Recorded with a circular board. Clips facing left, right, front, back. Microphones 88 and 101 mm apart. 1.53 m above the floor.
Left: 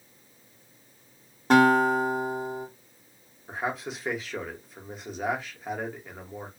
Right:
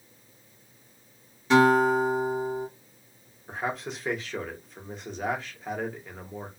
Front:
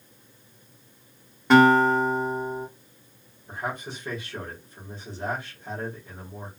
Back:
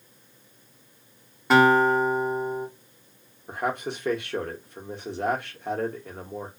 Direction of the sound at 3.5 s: 175° left.